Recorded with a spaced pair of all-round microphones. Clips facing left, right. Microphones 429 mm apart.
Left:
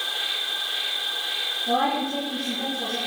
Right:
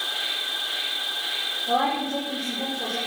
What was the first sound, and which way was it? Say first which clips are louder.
An insect: even; 35° right (ahead or behind).